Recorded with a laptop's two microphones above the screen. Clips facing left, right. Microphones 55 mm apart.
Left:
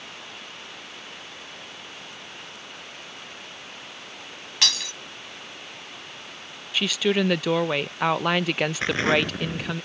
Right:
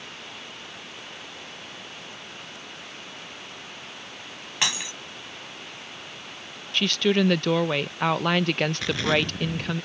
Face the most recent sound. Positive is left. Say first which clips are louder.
# left 4 dB
turn(degrees=35)  # may be behind; listen again after turning